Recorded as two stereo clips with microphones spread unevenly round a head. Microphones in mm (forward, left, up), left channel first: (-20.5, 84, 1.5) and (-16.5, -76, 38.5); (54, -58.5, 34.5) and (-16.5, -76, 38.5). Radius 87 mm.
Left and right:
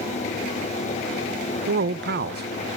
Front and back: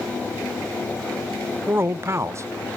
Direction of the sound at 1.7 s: 105° right.